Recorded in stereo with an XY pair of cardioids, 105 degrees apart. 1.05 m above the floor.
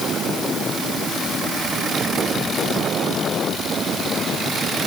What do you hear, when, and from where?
Only background noise.